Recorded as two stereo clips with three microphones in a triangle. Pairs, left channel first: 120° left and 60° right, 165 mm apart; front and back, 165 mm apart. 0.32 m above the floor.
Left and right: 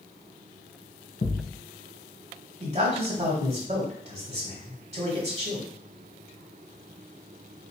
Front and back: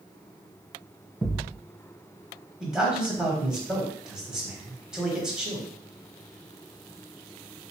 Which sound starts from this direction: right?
A man speaking, at 2.6 s.